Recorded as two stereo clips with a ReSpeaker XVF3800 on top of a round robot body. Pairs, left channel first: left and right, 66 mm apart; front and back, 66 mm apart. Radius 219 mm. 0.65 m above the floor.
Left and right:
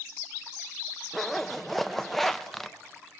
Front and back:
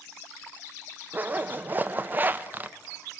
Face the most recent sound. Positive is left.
turn(degrees=175)